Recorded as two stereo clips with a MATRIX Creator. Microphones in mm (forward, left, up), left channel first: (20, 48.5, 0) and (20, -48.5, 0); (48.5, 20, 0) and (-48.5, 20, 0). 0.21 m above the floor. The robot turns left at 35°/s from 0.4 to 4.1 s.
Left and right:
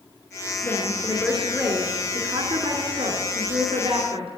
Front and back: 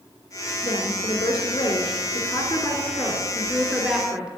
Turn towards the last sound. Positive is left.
turn(degrees=-100)